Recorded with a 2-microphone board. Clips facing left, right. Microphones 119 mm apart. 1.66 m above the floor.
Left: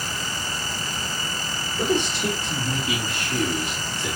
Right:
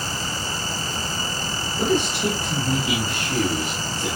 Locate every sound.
1.8 s a man speaking: 5° right (ahead or behind), 3.5 m; by 4.1 s 40° right (ahead or behind), 4 m